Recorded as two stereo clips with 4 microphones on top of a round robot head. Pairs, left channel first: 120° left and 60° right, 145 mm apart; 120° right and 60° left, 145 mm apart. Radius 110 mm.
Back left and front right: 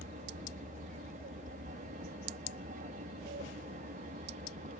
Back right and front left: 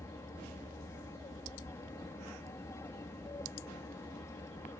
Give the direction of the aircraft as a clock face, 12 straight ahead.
2 o'clock.